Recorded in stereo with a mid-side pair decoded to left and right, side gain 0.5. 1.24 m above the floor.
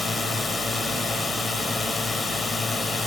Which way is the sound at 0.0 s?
35° left.